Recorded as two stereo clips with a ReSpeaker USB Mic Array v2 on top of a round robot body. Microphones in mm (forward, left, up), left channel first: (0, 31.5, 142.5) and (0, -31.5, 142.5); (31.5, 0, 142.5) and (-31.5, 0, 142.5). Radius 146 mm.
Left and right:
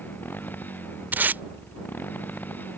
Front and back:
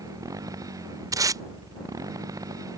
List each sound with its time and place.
0.0 s a motorcycle: 150° left
1.1 s tape being pulled: 150° right